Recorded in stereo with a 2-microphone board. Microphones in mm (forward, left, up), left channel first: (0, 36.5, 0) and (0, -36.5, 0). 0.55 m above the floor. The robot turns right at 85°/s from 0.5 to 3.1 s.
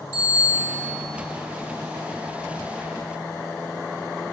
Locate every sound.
0.1 s a bicycle bell: 150° left, 6 m; by 0.9 s 175° right, 6 m